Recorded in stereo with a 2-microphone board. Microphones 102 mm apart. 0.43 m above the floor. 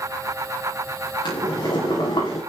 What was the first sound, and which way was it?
Boiling, 45° left (ahead or behind).